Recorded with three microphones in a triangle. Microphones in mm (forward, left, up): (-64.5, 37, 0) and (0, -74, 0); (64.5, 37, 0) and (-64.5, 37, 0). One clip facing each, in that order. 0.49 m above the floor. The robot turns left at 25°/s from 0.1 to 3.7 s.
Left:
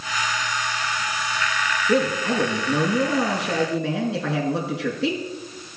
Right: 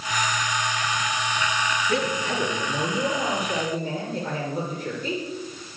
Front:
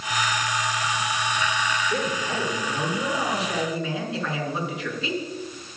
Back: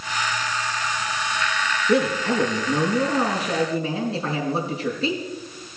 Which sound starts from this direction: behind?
A man speaking, at 1.9 s.